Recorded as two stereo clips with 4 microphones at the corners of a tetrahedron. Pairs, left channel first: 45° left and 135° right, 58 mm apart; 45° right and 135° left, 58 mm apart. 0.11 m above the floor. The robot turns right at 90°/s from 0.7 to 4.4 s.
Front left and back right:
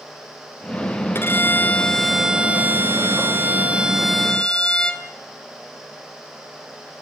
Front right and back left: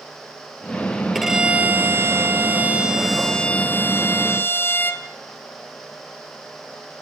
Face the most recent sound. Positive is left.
turn(degrees=-20)